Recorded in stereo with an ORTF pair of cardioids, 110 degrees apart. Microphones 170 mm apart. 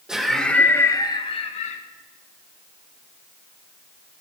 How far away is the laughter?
About 1.7 m.